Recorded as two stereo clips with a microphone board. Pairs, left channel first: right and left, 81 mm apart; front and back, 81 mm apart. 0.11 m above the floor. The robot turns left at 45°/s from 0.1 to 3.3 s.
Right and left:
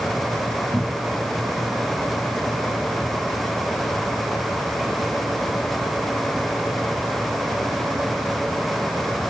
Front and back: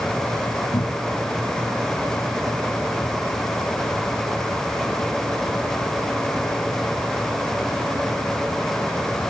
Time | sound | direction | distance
0.7 | a cupboard door | 20° left | ?